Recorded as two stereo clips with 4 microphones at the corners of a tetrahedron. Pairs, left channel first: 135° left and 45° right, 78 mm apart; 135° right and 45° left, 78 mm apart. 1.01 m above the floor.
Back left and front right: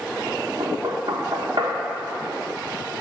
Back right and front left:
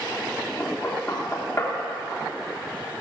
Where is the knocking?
70° right, 1.2 m.